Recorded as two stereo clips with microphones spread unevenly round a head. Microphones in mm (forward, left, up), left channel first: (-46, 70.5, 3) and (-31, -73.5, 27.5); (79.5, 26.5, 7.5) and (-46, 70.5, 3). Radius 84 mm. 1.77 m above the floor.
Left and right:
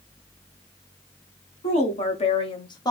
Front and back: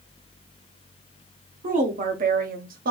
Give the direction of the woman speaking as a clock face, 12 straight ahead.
7 o'clock.